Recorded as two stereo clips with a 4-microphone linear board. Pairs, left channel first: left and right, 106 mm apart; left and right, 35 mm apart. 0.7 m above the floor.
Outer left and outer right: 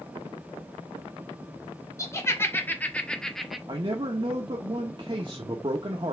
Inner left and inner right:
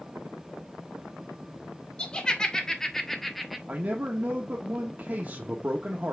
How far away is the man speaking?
About 1.3 m.